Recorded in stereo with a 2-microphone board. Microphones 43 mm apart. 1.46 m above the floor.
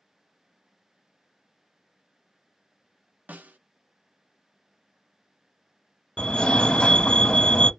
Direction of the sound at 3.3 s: 40° right (ahead or behind).